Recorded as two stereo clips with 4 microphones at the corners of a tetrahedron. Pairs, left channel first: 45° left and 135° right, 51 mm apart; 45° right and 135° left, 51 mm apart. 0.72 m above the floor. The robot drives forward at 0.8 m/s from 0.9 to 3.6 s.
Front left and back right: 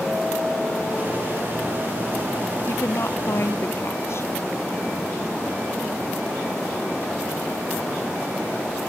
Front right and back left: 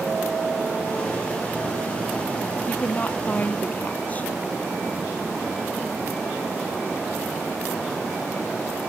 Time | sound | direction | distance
2.7 | a woman speaking | 15° left | ?